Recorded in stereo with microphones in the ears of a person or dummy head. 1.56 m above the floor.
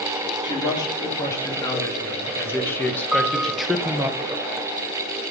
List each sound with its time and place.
0.4 s a man speaking: 20° left (ahead or behind), 3 m; by 4.1 s 15° right (ahead or behind), 0.9 m
3.1 s a piano: 5° right (ahead or behind), 0.6 m